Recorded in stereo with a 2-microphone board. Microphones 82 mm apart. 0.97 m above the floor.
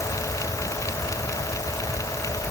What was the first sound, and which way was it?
Only background noise.